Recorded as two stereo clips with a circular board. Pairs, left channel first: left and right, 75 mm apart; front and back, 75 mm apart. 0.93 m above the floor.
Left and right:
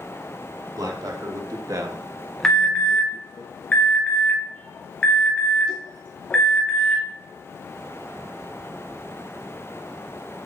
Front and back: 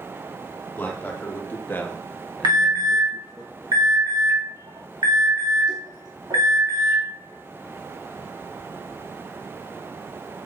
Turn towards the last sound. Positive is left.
turn(degrees=165)